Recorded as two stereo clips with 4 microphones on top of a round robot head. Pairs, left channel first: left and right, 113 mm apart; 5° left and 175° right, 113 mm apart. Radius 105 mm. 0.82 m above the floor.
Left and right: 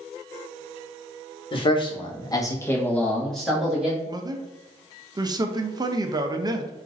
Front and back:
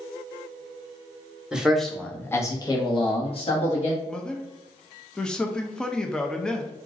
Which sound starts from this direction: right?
A man speaking, at 4.1 s.